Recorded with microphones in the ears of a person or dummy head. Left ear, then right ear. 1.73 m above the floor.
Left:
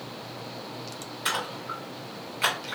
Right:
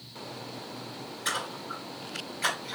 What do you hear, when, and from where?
1.2 s a splash: 50° left (ahead or behind), 2.0 m